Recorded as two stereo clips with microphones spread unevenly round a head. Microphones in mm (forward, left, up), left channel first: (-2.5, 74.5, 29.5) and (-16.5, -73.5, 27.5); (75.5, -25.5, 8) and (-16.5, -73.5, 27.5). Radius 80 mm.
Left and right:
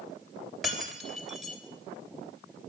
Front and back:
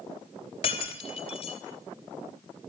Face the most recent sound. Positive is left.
turn(degrees=-5)